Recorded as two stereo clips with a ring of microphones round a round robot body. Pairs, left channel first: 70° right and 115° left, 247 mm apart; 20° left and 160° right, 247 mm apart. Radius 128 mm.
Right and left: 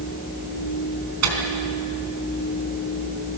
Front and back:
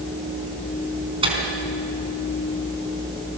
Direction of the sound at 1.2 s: 135° left.